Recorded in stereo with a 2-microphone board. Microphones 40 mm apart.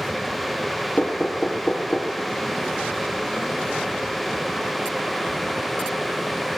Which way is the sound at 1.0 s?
30° left (ahead or behind).